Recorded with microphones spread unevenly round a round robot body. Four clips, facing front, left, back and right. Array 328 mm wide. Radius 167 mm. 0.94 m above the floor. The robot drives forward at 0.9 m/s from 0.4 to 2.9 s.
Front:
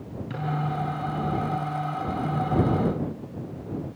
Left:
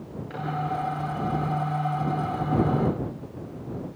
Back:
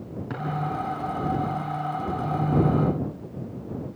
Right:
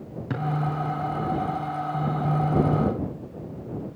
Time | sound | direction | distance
0.3 | a drawer | 85° right | 3.5 m